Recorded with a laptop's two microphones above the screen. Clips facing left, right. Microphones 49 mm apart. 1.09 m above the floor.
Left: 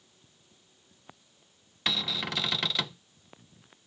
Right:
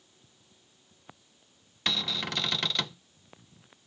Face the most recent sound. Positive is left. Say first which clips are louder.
# even
turn(degrees=5)  # may be behind; listen again after turning